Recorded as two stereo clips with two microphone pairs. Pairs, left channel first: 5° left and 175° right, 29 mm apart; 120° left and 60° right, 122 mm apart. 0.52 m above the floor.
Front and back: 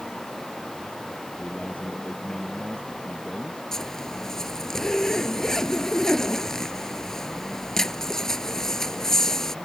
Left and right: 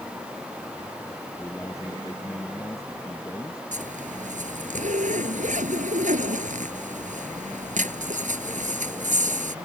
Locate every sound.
1.4 s a man speaking: 55° left; by 3.6 s 60° left
3.7 s a zipper: 65° right